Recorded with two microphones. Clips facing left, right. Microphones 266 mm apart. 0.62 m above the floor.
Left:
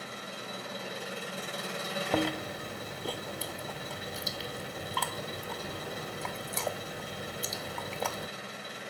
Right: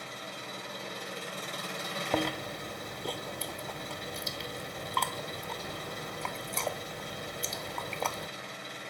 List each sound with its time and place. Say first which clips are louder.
0.0 s an engine running: left 1 dB; 5° left (ahead or behind), 6.5 m
2.1 s chewing: left 1 dB; 5° left (ahead or behind), 0.5 m